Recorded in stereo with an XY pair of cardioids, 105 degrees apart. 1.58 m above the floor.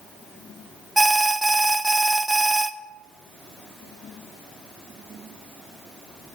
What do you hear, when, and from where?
1.0 s an alarm: 10° right, 0.8 m